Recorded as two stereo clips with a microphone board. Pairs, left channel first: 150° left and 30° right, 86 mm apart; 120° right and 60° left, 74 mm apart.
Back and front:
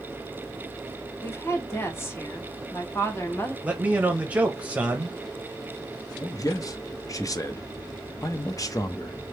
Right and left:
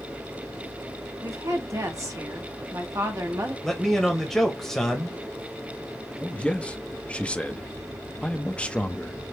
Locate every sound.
1.2 s a woman speaking: 95° left, 1.2 m
3.6 s a man speaking: 50° right, 0.9 m
6.2 s a man speaking: 175° left, 0.6 m